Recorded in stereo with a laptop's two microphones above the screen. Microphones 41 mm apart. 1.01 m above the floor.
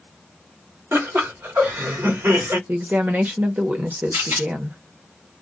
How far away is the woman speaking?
About 0.9 m.